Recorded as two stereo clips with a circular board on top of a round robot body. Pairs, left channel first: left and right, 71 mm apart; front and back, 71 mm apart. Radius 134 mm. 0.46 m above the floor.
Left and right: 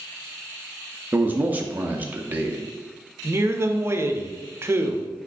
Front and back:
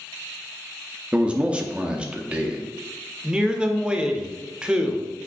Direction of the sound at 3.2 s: 110° right.